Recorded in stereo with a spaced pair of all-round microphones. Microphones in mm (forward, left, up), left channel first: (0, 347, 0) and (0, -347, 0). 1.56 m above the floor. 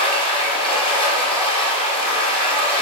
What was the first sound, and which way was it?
Running water, 10° left (ahead or behind).